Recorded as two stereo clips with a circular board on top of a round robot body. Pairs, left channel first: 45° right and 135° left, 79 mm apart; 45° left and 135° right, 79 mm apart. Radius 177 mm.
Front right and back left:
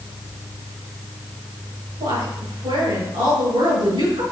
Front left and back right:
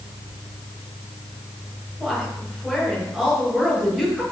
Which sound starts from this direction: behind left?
A woman speaking, at 2.0 s.